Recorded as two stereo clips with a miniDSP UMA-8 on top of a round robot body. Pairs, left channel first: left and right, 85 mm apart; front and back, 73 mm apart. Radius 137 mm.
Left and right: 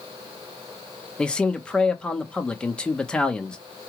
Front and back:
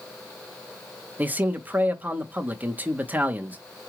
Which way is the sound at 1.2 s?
155° left.